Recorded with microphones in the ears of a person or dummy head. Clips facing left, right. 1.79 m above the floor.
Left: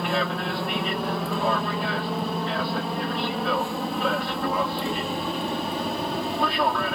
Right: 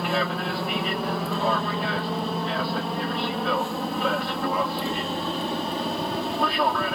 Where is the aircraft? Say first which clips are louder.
Even; 5° right (ahead or behind).